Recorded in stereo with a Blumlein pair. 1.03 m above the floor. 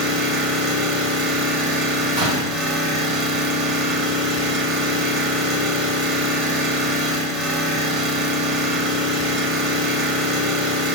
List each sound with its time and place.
0.0 s an engine running: 30° right, 0.8 m
2.2 s a door slam: 60° right, 1.3 m